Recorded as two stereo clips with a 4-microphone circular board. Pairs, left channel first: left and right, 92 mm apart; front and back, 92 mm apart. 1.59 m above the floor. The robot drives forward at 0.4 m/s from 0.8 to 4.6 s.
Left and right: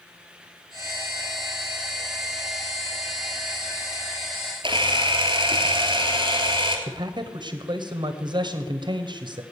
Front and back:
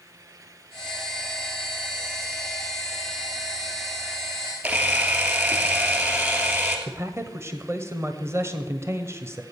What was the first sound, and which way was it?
A camera shutter, 115° right.